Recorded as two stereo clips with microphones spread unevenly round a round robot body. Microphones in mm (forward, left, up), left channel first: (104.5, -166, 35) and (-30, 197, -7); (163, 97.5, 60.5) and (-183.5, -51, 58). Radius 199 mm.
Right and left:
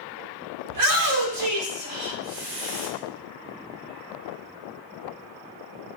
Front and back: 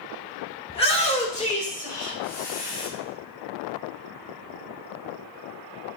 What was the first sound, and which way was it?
A shout, 95° left.